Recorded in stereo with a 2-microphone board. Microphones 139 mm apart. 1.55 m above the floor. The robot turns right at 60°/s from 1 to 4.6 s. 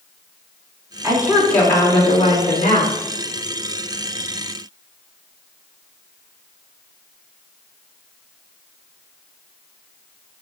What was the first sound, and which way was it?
A woman speaking, 20° right.